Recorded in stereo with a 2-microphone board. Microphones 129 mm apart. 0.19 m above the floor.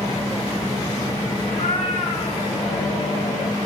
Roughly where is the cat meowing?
Left.